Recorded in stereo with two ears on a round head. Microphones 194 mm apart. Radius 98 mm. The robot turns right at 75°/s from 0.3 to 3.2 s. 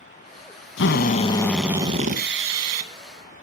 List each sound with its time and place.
0.8 s a drill: 120° left, 2.5 m; by 2.9 s 80° right, 2.5 m